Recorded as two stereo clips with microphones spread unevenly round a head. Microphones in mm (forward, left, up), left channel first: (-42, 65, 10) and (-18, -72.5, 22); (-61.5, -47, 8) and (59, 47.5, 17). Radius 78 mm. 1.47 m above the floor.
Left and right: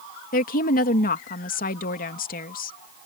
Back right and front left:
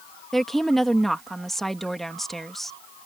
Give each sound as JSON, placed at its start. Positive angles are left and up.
{"t": 0.3, "sound": "a woman speaking", "azimuth_deg": 130}